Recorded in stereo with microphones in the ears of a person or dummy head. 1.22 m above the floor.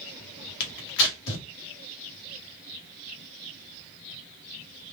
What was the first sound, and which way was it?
Tearing paper, 65° left (ahead or behind).